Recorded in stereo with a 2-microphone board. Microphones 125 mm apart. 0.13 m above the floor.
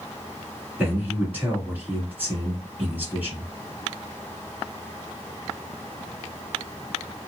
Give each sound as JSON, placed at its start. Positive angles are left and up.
{"t": 0.8, "sound": "a man speaking", "side_deg": -15, "distance_m": 1.4}